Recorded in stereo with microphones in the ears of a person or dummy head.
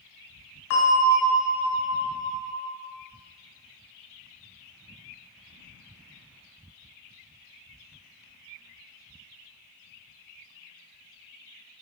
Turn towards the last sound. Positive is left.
turn(degrees=75)  # may be behind; listen again after turning